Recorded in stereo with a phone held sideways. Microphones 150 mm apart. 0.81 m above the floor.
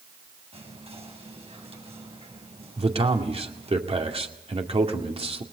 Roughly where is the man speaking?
Right.